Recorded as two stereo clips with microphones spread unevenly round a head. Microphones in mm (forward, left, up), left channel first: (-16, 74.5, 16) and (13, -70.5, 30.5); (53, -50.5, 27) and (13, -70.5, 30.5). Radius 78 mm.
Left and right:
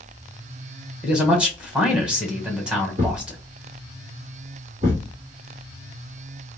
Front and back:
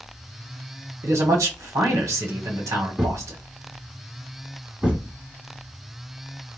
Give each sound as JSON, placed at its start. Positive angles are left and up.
{"t": 1.0, "sound": "a man speaking", "azimuth_deg": -160, "distance_m": 1.1}
{"t": 3.0, "sound": "a thud", "azimuth_deg": -95, "distance_m": 1.8}